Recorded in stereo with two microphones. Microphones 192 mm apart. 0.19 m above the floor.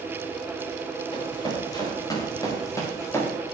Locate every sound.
1.1 s running footsteps: 25° left (ahead or behind), 6.5 m; by 3.3 s 15° left (ahead or behind), 4.5 m